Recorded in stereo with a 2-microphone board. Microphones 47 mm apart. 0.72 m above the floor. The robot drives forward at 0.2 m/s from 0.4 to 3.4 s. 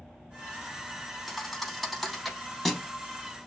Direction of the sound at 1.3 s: Centre (ahead or behind).